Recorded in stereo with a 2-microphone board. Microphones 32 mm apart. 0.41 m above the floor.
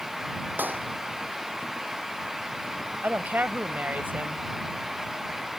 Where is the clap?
70° right (ahead or behind).